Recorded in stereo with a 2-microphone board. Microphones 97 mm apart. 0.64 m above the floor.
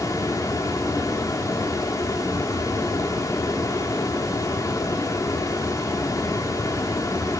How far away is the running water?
About 1.0 m.